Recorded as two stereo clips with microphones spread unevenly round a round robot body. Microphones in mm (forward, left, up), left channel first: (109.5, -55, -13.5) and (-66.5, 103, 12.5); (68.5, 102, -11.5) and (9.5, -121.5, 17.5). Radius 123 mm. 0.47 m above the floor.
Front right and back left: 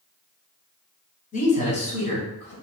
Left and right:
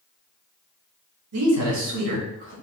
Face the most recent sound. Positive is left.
turn(degrees=-105)